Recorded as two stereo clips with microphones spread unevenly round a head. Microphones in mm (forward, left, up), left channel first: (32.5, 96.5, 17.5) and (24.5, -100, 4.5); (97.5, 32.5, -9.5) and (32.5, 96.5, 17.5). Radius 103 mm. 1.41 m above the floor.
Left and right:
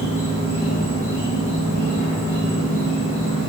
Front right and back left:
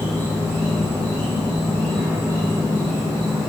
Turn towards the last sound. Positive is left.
turn(degrees=-85)